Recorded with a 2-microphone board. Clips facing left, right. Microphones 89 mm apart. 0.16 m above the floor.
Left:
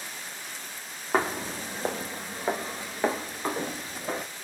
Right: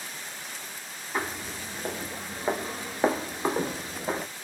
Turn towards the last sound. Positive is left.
turn(degrees=-25)  # may be behind; listen again after turning